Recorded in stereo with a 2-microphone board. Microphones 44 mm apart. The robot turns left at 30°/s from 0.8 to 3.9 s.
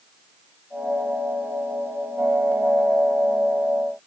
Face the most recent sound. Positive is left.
No sound to turn to.